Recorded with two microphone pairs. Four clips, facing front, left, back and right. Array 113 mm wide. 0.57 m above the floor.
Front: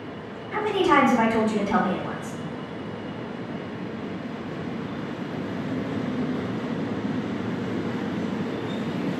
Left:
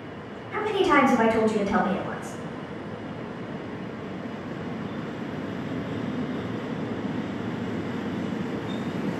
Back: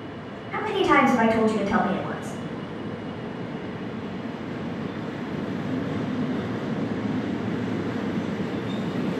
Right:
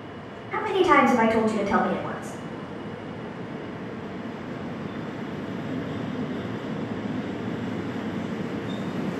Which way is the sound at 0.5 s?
80° right.